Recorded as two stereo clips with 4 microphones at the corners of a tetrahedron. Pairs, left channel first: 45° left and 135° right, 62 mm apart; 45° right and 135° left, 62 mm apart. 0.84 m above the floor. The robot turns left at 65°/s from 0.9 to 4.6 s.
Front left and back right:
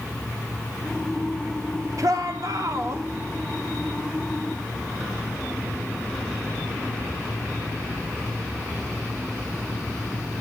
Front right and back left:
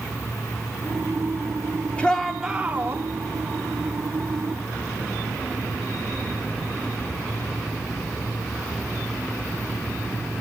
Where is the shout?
115° right, 2.5 m; by 3.0 s 175° left, 2.5 m.